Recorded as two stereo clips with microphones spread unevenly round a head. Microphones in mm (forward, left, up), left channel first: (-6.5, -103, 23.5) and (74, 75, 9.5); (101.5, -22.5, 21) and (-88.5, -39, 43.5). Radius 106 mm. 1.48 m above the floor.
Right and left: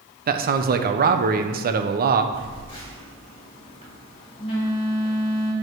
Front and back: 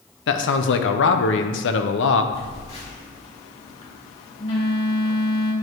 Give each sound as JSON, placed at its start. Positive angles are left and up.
{"t": 0.3, "sound": "a man speaking", "azimuth_deg": 25, "distance_m": 1.0}
{"t": 2.3, "sound": "a phone buzzing", "azimuth_deg": -50, "distance_m": 3.5}